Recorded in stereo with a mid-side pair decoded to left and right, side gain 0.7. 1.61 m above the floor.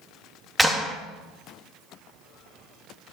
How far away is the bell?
No bell in this recording.